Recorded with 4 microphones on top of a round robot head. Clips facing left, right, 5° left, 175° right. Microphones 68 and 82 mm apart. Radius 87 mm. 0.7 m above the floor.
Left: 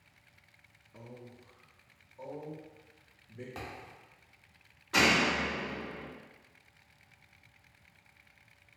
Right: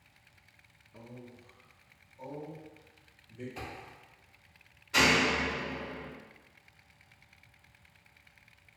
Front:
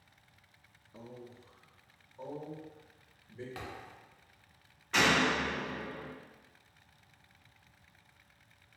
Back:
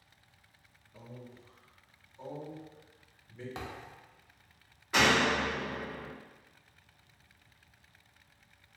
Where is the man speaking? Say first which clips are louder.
Right 1 dB, front 1 dB; 15° left, 0.6 m; by 3.5 s 60° left, 1.9 m.